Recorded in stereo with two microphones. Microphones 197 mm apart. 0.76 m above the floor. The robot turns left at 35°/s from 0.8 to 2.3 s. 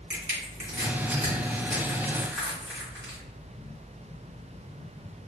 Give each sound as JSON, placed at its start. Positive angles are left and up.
{"t": 0.1, "sound": "crushing", "side_deg": -45, "distance_m": 1.7}